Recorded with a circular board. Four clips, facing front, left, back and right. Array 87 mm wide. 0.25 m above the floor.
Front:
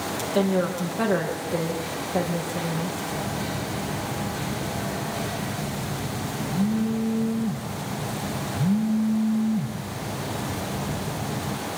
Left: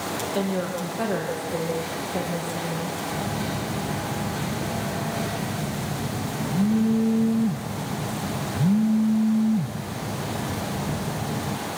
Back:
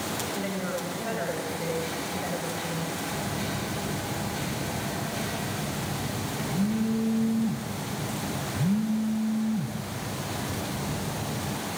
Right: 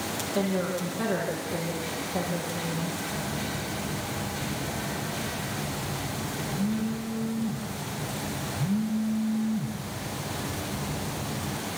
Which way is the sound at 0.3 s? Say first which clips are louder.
Even, front 13 dB; 20° left.